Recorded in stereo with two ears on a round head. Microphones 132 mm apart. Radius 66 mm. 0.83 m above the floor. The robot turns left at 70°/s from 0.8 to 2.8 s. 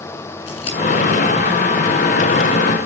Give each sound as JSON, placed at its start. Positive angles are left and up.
{"t": 0.5, "sound": "scissors", "side_deg": 40, "distance_m": 8.5}